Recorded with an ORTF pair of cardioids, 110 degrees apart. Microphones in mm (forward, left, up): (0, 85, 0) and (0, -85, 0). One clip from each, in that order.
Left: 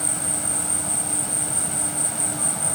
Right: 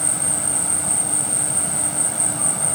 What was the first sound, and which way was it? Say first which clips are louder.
An insect: right 3 dB; 15° right.